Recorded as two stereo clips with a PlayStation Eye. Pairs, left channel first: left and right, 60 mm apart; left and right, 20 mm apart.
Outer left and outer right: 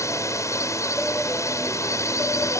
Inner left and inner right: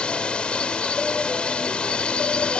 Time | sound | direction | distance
0.0 | a drone | 65° left (ahead or behind) | ?